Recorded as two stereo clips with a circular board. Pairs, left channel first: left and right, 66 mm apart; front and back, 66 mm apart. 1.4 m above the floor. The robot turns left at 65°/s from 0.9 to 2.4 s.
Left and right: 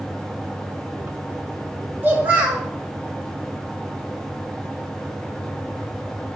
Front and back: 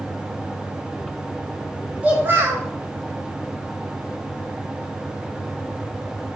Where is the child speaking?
125° right, 0.8 m; by 2.7 s 145° right, 0.8 m.